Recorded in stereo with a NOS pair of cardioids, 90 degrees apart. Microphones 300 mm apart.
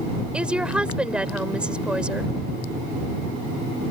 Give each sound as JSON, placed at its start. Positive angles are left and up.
{"t": 0.3, "sound": "a woman speaking", "azimuth_deg": -5}